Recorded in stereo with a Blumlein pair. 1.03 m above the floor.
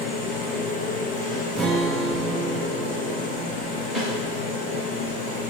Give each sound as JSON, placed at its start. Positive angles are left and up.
{"t": 0.0, "sound": "a machine running", "azimuth_deg": 30, "distance_m": 2.5}
{"t": 1.6, "sound": "a guitar", "azimuth_deg": -15, "distance_m": 0.7}
{"t": 4.0, "sound": "a snare drum", "azimuth_deg": 0, "distance_m": 1.7}